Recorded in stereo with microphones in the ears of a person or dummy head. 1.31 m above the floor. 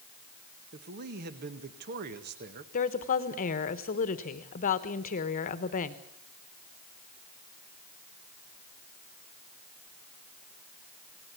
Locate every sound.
0.7 s a man speaking: 50° right (ahead or behind), 1.7 m
2.7 s a woman speaking: 40° left (ahead or behind), 1.3 m